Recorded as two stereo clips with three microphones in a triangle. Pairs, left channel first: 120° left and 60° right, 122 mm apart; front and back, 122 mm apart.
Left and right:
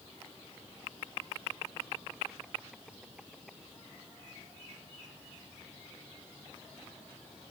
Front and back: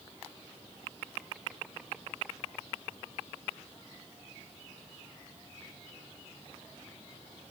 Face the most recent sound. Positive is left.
No sound to turn to.